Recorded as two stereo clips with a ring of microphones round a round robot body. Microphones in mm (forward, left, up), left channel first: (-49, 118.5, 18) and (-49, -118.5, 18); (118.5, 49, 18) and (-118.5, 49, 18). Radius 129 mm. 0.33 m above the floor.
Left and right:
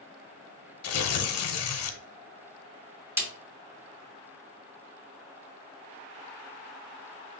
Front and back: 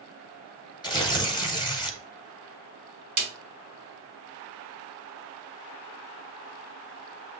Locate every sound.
0.8 s tearing paper: 70° left, 0.8 m
3.2 s a snare drum: 160° right, 1.8 m